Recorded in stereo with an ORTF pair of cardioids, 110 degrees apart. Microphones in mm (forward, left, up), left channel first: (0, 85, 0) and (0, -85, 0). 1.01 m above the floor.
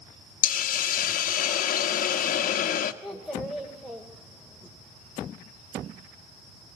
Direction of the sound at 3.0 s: Straight ahead.